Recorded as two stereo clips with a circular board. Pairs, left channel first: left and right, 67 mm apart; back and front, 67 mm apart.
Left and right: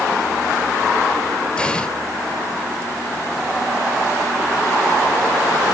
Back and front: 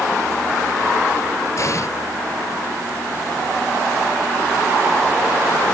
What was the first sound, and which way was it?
An explosion, 165° left.